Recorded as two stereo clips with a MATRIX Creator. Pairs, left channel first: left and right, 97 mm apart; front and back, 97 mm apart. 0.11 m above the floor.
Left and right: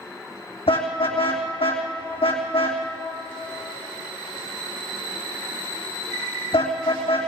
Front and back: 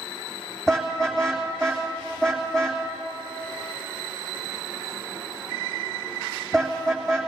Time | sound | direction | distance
0.7 | a car horn | 85° left | 3 m